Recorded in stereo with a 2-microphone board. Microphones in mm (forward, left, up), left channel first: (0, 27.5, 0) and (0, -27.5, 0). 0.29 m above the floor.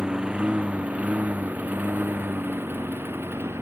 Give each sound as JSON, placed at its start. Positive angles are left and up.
{"t": 0.0, "sound": "a lawn mower", "side_deg": -15}